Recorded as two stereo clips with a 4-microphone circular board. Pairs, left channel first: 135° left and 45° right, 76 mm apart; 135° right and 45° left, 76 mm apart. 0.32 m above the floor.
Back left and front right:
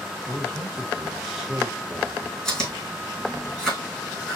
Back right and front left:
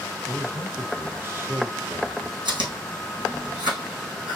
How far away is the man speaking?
About 0.9 m.